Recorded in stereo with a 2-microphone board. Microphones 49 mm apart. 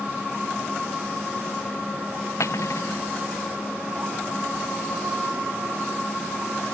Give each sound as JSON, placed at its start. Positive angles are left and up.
{"t": 2.4, "sound": "cutlery clinking", "side_deg": 85}